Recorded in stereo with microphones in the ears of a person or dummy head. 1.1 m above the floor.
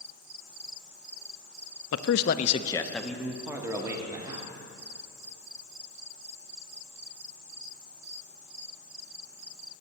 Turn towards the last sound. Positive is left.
turn(degrees=-20)  # may be behind; listen again after turning